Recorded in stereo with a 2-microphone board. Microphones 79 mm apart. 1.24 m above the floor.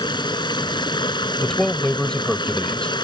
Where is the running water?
70° left (ahead or behind).